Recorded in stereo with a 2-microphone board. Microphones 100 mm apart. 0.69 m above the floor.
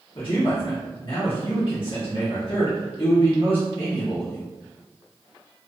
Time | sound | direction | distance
0.1 | a man speaking | 55° left (ahead or behind) | 1.1 m